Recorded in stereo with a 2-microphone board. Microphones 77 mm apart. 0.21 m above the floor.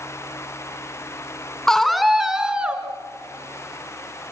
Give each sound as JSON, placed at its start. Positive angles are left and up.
{"t": 1.7, "sound": "a scream", "side_deg": 5, "distance_m": 2.0}